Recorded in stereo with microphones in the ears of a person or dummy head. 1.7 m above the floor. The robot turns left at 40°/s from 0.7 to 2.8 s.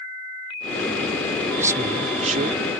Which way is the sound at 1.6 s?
5° right.